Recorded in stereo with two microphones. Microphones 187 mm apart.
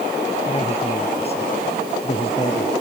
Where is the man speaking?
35° left (ahead or behind).